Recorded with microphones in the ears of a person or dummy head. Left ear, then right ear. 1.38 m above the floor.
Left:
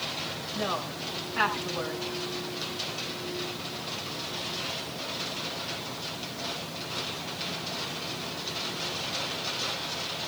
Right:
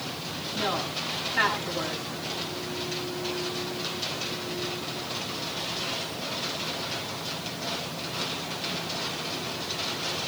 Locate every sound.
0.6 s a woman speaking: 35° left (ahead or behind), 8 m